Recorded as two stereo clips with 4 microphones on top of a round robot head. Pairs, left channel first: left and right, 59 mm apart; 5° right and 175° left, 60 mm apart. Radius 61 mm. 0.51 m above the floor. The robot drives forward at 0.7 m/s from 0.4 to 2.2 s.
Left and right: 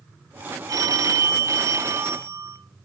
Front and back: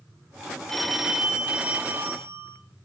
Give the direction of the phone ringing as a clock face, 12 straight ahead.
3 o'clock.